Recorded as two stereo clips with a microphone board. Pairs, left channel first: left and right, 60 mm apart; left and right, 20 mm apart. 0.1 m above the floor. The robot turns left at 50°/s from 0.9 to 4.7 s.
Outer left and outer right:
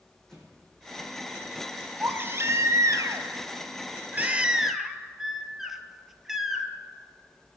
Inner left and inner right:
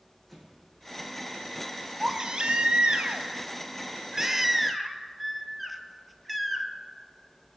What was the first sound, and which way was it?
An explosion, 10° left (ahead or behind).